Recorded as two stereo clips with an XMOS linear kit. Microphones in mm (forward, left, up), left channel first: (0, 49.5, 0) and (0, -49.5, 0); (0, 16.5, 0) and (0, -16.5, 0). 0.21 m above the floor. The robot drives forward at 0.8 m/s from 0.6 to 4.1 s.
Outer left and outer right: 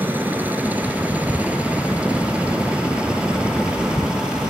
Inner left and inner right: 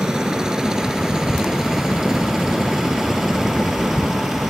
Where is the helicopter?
20° right (ahead or behind); by 4.5 s 10° right (ahead or behind).